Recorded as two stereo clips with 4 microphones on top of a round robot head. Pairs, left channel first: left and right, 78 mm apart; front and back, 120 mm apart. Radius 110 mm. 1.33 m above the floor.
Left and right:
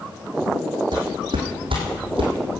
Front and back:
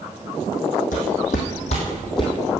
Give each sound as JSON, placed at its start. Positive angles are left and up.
{"t": 0.9, "sound": "footsteps", "azimuth_deg": -35, "distance_m": 3.0}